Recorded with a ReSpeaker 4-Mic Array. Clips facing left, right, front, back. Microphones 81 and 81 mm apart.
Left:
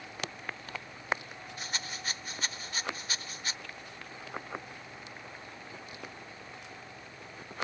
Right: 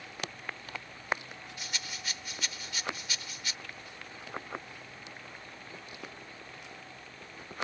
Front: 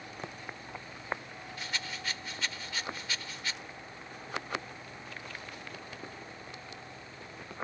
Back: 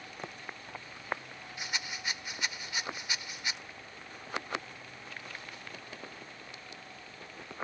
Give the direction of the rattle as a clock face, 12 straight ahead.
8 o'clock.